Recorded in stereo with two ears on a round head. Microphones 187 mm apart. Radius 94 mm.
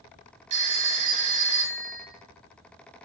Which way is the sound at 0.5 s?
35° right (ahead or behind).